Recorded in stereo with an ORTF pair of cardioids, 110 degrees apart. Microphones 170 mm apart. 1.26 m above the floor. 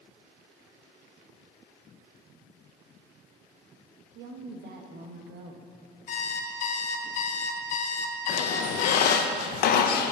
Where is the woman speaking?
70° right, 1.3 m.